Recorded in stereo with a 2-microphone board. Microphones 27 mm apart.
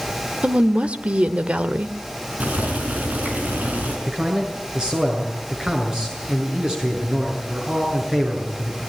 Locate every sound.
0.4 s a woman speaking: 45° right (ahead or behind), 1.2 m
2.4 s boiling: 65° right (ahead or behind), 5 m
4.1 s a man speaking: 30° right (ahead or behind), 7.5 m